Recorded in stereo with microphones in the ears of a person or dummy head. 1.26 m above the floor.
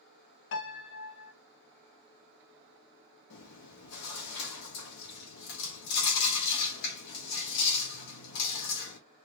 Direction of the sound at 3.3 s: 75° left (ahead or behind).